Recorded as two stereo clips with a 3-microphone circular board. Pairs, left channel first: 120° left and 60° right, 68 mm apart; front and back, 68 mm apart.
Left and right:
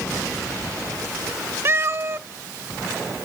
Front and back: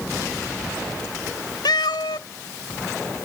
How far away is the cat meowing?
About 0.6 m.